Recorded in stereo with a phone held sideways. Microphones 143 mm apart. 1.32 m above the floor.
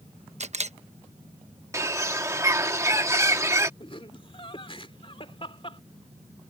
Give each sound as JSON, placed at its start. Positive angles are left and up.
{"t": 0.4, "sound": "a camera shutter", "side_deg": -55}
{"t": 1.7, "sound": "a bird", "side_deg": -20}
{"t": 3.8, "sound": "laughter", "side_deg": 40}